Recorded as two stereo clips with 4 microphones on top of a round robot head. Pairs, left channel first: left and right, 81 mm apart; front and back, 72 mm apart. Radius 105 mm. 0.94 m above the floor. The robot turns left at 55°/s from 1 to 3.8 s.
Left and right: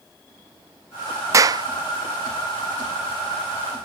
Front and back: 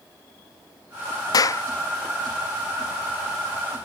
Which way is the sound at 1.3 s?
40° right.